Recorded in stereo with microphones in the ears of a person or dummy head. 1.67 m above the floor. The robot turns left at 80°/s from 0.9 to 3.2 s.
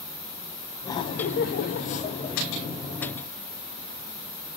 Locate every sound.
0.8 s laughter: 150° left, 0.8 m; by 2.4 s 30° left, 0.8 m